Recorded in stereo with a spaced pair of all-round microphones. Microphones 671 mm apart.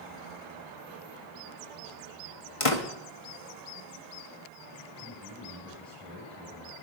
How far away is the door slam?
About 1.5 m.